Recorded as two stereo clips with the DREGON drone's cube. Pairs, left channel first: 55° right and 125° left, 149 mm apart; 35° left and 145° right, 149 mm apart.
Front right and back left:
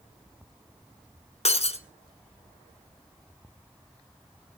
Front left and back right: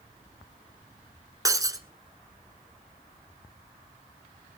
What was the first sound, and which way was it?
Breaking glass, 85° right.